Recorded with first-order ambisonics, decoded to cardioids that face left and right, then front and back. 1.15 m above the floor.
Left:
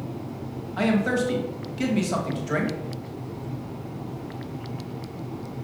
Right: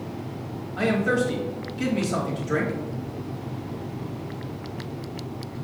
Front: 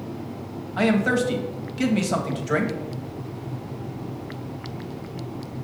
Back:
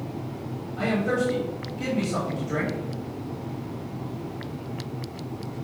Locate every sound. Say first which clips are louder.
0.8 s a man speaking: right 1 dB, front 4 dB; 25° left, 1.5 m